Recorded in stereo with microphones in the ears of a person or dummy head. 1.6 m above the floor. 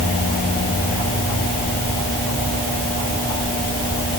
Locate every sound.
Only background noise.